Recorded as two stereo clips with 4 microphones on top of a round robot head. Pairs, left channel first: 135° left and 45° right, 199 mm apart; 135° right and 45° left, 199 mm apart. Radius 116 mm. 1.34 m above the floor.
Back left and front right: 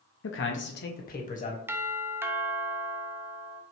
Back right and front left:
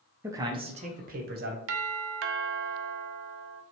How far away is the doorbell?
About 0.5 m.